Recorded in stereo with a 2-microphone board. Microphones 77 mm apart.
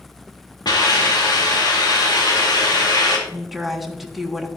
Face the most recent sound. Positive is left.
turn(degrees=0)  # may be behind; listen again after turning